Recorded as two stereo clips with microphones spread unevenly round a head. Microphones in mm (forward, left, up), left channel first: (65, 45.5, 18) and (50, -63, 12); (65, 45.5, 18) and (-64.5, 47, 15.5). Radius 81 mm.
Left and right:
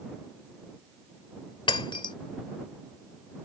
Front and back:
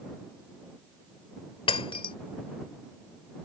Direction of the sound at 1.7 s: 45° left.